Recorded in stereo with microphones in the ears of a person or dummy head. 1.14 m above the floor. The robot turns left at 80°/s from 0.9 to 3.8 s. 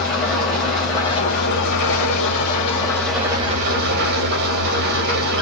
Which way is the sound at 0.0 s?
175° left.